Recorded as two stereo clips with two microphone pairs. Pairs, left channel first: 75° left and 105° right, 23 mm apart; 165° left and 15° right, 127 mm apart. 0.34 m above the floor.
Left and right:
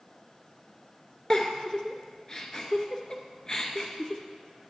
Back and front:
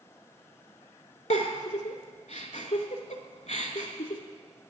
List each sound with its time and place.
1.3 s a giggle: 140° left, 0.7 m